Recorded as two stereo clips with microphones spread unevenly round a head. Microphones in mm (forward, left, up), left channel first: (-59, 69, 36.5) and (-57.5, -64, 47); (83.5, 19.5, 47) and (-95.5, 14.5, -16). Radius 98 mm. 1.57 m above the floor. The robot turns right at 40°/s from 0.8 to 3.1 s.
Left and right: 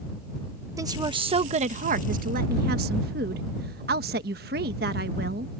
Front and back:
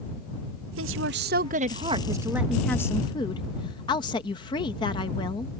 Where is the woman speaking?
155° right; by 5.5 s 60° right.